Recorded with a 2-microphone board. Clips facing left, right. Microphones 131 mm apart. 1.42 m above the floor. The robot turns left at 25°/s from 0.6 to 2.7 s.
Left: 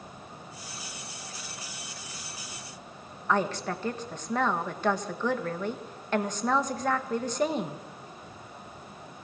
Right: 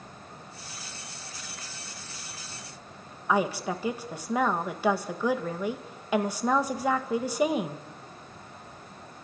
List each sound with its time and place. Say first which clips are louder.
3.3 s a woman speaking: right 1 dB; 10° right (ahead or behind), 1.8 m